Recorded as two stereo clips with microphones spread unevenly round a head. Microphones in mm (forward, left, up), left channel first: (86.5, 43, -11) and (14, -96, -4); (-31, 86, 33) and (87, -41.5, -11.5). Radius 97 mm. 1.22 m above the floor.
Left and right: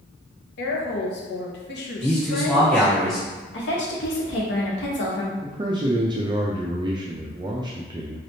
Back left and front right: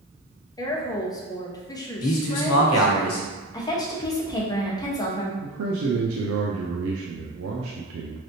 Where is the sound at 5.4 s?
55° right, 0.5 m.